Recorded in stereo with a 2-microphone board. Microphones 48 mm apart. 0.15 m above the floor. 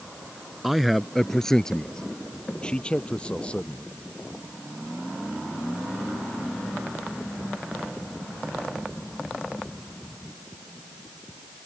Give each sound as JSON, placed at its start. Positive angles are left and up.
{"t": 0.6, "sound": "a man speaking", "side_deg": -5}